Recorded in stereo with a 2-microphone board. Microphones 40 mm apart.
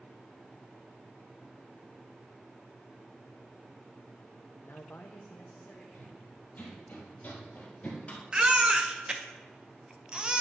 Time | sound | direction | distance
4.6 | a man speaking | 60° left (ahead or behind) | 0.6 m
5.9 | running footsteps | 45° left (ahead or behind) | 2.5 m
8.3 | a baby crying | 20° right (ahead or behind) | 0.8 m